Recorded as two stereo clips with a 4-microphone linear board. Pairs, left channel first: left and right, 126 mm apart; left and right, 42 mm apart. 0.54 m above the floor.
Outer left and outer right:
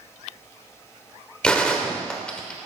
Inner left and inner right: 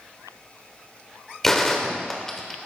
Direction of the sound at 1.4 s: 5° left (ahead or behind).